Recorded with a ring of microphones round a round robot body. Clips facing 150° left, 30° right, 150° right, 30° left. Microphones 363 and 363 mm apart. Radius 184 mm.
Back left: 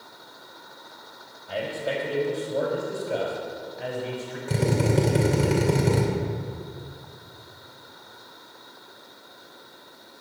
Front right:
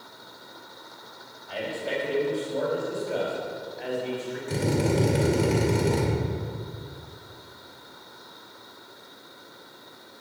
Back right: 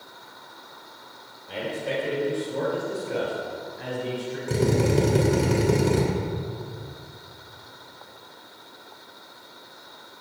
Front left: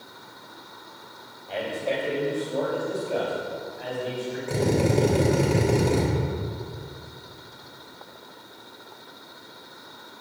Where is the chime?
No chime in this recording.